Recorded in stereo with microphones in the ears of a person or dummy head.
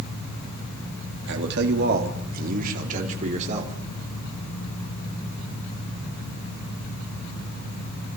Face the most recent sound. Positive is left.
turn(degrees=-35)  # may be behind; listen again after turning